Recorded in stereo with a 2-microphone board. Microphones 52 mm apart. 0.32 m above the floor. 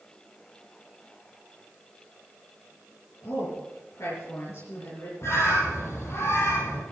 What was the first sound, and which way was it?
A woman speaking, 70° left (ahead or behind).